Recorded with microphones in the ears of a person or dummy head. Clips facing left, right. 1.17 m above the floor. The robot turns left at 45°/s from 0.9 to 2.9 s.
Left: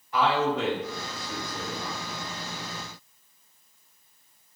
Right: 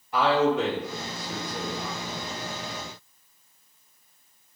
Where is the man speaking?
135° right, 1.3 m; by 2.0 s 175° left, 1.3 m.